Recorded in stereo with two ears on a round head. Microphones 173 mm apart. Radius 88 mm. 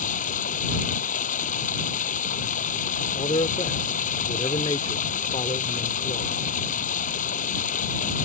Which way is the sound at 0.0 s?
40° left (ahead or behind).